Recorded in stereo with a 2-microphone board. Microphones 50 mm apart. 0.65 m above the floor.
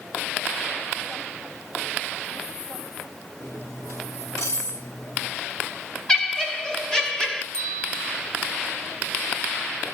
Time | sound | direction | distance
3.4 | cutlery clinking | 80° left | 4 m
6.1 | laughter | 15° left (ahead or behind) | 2.5 m
7.5 | a bell | 20° left (ahead or behind) | 5.5 m